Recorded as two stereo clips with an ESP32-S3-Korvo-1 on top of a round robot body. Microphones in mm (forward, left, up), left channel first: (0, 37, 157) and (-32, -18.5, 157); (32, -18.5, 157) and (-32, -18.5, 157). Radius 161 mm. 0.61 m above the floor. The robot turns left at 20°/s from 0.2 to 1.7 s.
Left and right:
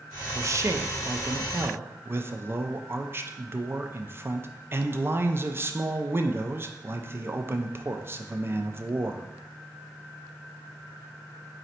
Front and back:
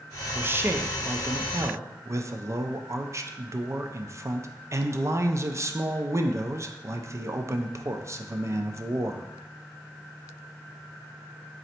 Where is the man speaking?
135° right, 0.7 m; by 9.3 s 160° right, 0.7 m.